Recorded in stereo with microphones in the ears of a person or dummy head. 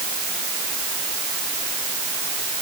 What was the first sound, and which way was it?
Only background noise.